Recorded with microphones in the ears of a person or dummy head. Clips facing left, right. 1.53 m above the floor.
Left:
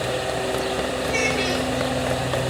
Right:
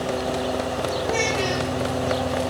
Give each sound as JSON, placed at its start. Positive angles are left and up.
{"t": 1.1, "sound": "a child speaking", "side_deg": 40, "distance_m": 7.5}